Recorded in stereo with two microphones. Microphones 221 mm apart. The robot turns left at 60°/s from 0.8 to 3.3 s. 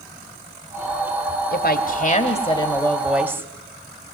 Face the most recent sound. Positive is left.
turn(degrees=-15)